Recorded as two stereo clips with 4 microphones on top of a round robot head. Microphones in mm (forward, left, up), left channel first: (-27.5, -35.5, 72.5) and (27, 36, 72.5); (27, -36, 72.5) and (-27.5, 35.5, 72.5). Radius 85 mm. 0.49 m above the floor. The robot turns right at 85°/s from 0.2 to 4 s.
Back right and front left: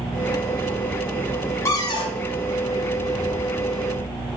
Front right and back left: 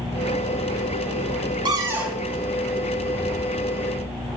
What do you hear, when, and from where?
1.6 s a cupboard door: 170° left, 1.4 m; by 2.2 s 145° right, 1.4 m